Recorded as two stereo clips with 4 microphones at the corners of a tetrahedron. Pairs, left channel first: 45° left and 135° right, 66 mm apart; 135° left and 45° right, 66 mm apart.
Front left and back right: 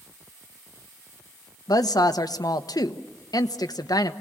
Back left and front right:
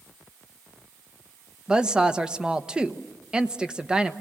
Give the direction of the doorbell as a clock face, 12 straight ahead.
No doorbell in this recording.